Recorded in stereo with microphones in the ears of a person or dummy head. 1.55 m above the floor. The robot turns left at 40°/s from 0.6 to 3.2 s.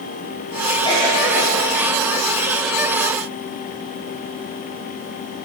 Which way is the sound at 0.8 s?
30° left (ahead or behind).